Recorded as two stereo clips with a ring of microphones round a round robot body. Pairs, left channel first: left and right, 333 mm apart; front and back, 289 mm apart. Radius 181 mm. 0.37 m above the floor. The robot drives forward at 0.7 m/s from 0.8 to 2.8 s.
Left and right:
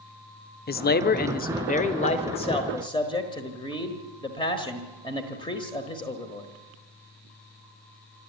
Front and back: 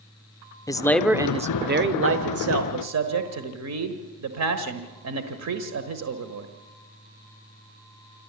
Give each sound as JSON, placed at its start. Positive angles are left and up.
{"t": 0.7, "sound": "a man speaking", "azimuth_deg": 70, "distance_m": 0.8}